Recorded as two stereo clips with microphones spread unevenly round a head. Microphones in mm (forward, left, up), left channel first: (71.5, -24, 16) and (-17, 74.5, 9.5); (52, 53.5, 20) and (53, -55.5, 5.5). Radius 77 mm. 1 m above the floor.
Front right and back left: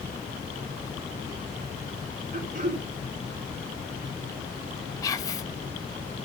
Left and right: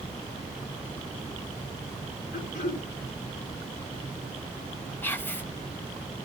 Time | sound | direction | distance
2.3 | throat clearing | 110° left | 3.5 m
5.0 | whispering | 15° left | 1.4 m